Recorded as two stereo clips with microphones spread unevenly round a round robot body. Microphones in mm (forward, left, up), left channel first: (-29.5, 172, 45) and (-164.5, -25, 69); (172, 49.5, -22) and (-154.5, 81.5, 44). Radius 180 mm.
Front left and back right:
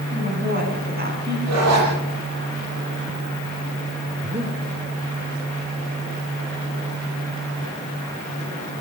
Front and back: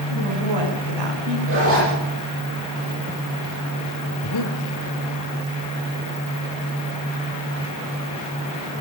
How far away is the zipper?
About 8.5 m.